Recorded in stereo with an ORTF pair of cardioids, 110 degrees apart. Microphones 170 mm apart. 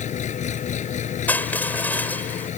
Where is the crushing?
10° left.